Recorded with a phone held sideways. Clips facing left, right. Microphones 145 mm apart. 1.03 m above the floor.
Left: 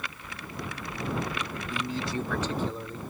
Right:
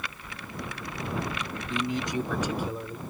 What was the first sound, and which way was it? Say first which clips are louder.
A man speaking: right 3 dB; 20° right (ahead or behind).